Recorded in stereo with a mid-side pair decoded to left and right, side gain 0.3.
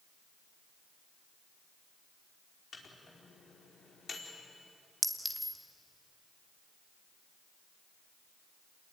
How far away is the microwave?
About 4.5 m.